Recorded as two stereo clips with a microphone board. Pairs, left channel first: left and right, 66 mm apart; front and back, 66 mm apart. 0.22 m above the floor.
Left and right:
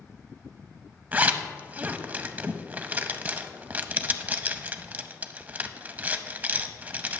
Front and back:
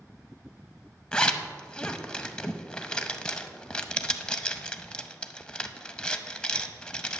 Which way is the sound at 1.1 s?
60° right.